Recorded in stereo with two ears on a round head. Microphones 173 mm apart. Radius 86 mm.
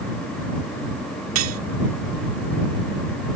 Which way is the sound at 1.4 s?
80° right.